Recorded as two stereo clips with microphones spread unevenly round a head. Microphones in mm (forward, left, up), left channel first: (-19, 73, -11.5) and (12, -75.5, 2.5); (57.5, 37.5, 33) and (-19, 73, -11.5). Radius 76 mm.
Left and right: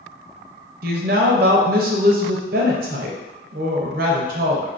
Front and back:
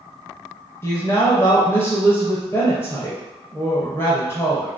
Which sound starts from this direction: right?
A woman speaking, at 0.8 s.